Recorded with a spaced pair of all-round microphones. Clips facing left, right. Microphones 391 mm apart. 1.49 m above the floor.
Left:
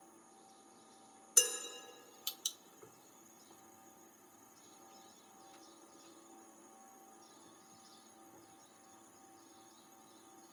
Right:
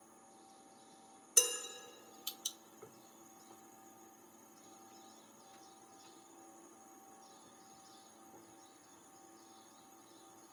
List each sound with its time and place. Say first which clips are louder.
1.4 s dishes clattering: right 1 dB; 5° right (ahead or behind), 1.2 m